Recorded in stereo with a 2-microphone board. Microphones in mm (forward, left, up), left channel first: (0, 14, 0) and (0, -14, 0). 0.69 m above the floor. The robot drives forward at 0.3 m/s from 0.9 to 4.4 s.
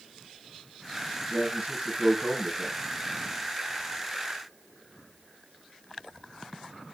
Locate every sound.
1.3 s a man speaking: 80° right, 4 m